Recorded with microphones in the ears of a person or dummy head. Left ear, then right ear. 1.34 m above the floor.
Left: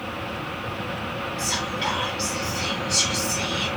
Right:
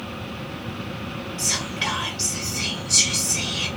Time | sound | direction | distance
1.4 | whispering | 20° right (ahead or behind) | 1.0 m